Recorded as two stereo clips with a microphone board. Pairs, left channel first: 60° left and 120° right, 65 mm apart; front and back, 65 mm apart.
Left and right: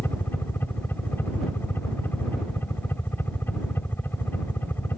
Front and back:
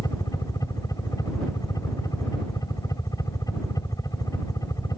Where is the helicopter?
5° left.